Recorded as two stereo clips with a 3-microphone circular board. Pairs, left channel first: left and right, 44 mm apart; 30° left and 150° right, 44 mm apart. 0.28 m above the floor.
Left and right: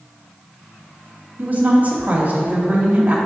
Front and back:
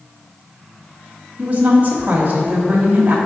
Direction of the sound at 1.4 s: 120° right.